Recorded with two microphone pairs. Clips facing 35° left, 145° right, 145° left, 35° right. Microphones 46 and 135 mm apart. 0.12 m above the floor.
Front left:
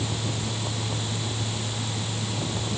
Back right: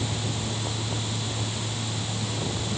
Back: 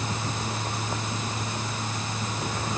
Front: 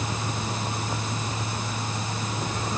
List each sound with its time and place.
Only background noise.